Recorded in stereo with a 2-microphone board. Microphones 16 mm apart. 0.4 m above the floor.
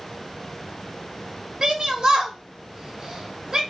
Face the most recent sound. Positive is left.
turn(degrees=-45)  # may be behind; listen again after turning